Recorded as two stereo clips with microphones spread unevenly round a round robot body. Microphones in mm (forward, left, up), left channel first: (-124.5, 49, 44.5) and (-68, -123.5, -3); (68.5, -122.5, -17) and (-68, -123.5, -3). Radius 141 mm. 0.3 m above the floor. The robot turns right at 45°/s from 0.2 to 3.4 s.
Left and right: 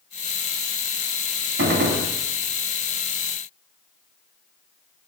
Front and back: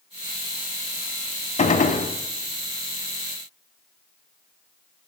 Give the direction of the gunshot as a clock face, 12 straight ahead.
1 o'clock.